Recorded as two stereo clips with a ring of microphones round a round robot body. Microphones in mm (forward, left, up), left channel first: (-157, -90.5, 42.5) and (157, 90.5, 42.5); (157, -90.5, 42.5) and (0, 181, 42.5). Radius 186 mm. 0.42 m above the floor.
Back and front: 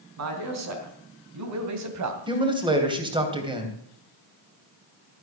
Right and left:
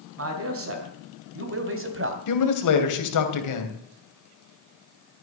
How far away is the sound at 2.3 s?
About 3 m.